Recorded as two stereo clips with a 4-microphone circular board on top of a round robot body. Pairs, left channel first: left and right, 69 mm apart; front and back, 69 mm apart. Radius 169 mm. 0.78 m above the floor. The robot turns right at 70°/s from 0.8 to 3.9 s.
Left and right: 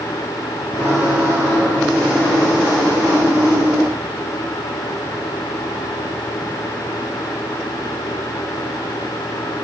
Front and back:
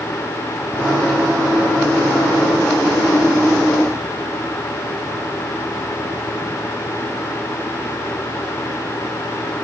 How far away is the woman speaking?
I don't hear a woman speaking.